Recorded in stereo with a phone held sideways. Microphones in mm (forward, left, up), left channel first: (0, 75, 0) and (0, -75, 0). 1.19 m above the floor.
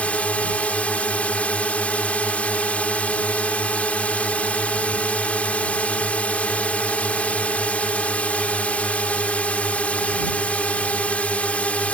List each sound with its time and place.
0.0 s a drone: 10° left (ahead or behind)